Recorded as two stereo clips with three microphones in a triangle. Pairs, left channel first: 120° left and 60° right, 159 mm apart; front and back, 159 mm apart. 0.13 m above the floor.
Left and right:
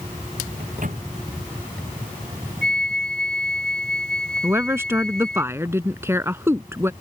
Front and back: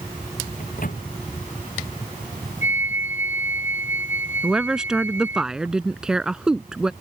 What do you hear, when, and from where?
0.6 s a microwave: 30° right
2.6 s a flute: 40° right
4.4 s a woman speaking: 100° right